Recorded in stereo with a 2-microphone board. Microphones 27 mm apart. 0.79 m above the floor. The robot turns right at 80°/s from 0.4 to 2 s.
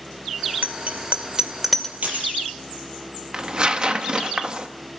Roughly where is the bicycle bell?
Right.